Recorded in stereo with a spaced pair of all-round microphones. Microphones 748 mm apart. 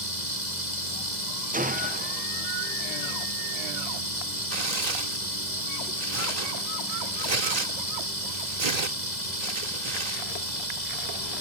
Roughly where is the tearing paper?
Right.